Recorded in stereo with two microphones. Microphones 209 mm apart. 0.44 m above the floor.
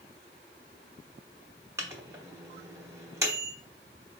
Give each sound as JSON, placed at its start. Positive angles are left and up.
{"t": 1.8, "sound": "a microwave", "side_deg": -15, "distance_m": 0.8}